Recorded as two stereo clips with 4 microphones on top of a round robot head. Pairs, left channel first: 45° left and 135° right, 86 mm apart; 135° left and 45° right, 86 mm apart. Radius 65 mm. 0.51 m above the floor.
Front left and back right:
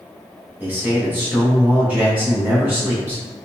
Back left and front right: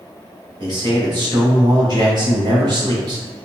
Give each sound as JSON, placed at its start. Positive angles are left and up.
{"t": 0.6, "sound": "a man speaking", "azimuth_deg": -65, "distance_m": 1.7}